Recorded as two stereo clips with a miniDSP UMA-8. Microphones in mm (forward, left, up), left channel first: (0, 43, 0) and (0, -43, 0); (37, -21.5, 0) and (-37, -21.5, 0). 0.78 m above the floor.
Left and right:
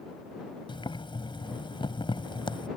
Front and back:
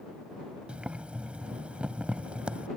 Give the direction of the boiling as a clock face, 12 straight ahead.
9 o'clock.